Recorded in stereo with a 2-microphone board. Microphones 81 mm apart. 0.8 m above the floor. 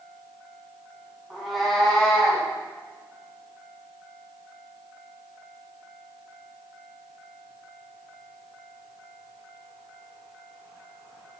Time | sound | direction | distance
1.3 | a cat meowing | centre (ahead or behind) | 1.9 m